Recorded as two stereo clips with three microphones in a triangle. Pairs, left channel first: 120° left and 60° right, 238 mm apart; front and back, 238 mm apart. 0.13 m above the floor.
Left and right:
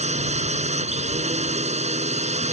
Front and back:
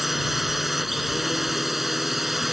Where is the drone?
90° right.